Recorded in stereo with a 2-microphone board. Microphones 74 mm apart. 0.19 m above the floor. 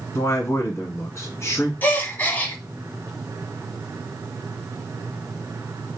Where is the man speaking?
40° left (ahead or behind), 1.9 m.